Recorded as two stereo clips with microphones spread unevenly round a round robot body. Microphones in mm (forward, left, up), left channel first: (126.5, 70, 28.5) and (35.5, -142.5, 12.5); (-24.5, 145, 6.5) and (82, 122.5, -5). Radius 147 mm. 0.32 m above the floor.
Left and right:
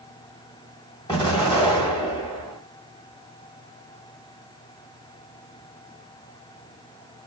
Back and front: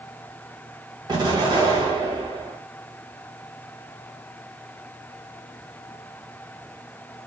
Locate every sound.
1.1 s an explosion: straight ahead, 1.3 m